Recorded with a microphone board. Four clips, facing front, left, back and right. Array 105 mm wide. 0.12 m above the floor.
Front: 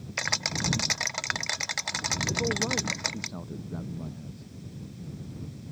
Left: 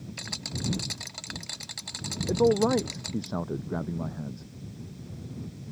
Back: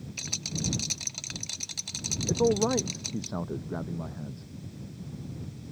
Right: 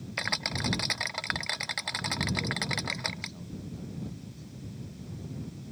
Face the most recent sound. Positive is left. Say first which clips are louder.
# left 12 dB, back 7 dB
turn(degrees=120)